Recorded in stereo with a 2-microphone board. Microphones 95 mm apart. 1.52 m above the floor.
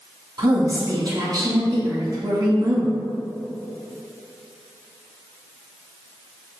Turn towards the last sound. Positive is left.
turn(degrees=-45)  # may be behind; listen again after turning